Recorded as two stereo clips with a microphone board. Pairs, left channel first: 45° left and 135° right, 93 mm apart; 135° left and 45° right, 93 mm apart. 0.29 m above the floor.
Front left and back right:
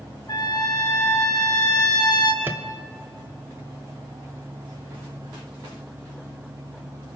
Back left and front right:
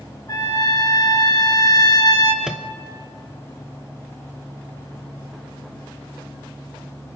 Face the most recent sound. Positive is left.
turn(degrees=-115)